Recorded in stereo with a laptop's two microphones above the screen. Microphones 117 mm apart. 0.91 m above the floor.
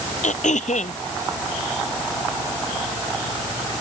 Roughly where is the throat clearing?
Left.